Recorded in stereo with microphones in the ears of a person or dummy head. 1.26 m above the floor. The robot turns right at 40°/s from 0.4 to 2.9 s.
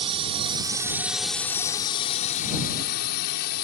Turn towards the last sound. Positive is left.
turn(degrees=65)